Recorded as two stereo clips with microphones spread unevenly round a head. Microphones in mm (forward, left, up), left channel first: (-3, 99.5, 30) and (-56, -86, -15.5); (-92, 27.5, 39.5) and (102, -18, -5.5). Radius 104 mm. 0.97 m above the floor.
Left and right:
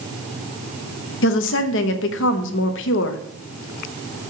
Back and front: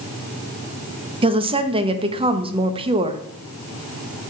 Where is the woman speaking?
40° left, 0.9 m.